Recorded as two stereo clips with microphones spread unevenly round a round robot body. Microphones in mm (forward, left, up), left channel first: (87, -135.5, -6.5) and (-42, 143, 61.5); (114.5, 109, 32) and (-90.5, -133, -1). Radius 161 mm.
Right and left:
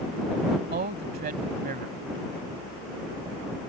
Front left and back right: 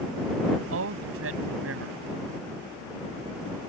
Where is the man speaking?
Straight behind.